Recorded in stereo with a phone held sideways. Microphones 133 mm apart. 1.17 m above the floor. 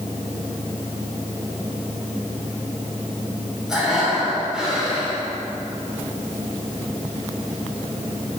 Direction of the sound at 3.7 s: 5° right (ahead or behind).